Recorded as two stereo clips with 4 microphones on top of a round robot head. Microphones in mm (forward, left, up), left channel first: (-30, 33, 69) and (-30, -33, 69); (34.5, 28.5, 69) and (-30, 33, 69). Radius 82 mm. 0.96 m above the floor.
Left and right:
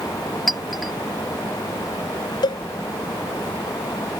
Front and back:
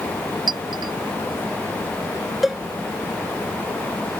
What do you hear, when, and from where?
0.5 s a clink: straight behind
2.4 s a cowbell: 90° left